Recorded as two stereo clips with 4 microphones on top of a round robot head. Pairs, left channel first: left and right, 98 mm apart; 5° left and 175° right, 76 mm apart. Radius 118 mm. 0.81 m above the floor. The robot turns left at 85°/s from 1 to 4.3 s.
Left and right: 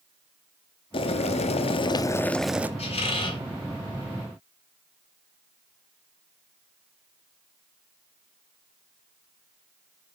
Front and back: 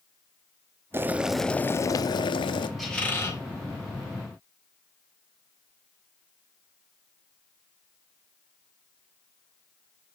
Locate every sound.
0.9 s boiling: 125° left, 0.6 m; by 2.7 s 20° right, 0.6 m
2.8 s a squeak: 95° left, 4.5 m; by 3.4 s 45° left, 4.5 m